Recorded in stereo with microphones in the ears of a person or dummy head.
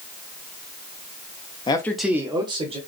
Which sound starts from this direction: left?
A man speaking, at 1.7 s.